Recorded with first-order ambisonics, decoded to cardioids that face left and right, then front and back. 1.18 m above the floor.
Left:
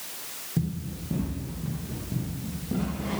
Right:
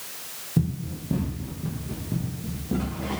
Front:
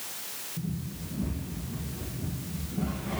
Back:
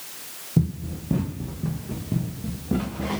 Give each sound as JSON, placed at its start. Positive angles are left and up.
{"t": 0.6, "sound": "running footsteps", "azimuth_deg": -165, "distance_m": 3.5}